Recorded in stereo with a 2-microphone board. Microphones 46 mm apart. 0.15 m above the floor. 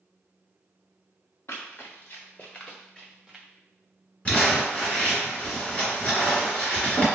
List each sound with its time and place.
1.5 s running footsteps: 65° left (ahead or behind), 1.1 m; by 3.5 s 15° right (ahead or behind), 1.0 m
4.2 s crumpling: 30° left (ahead or behind), 2.0 m